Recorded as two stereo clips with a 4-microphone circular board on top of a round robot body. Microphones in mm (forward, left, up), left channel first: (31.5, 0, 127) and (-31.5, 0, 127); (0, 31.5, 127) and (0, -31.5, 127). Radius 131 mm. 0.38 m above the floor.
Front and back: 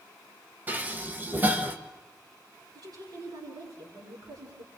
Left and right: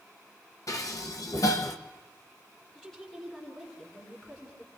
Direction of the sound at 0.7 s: 115° left.